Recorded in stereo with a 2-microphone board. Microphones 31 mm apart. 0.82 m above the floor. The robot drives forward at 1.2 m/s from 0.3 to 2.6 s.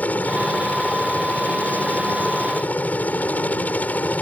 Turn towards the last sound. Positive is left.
turn(degrees=65)  # may be behind; listen again after turning